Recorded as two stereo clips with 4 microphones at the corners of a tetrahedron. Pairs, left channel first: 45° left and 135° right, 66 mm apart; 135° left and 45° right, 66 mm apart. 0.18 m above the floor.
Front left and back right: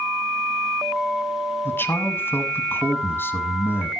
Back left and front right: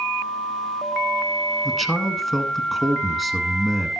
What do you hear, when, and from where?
1.6 s a man speaking: 45° left, 1.6 m